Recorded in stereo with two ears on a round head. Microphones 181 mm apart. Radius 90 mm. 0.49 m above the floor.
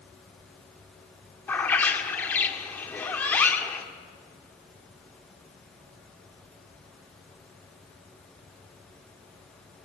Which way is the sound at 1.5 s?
10° left (ahead or behind).